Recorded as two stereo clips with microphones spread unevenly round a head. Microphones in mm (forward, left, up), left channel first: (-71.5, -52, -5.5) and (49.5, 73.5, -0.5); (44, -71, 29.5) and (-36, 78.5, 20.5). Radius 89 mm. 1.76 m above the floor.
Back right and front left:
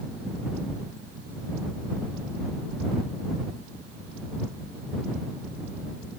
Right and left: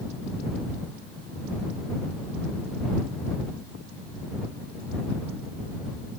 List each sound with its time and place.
Only background noise.